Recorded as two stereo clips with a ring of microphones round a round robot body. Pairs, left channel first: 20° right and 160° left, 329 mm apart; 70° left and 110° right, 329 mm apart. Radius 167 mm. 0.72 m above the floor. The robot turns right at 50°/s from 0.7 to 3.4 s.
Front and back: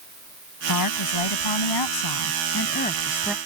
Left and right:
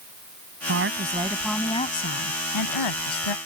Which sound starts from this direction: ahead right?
A woman speaking, at 0.7 s.